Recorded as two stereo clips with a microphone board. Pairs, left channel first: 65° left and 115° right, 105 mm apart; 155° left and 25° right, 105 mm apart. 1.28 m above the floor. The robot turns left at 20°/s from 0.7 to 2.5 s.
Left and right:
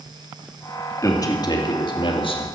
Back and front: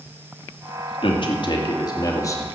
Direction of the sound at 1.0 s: 125° left.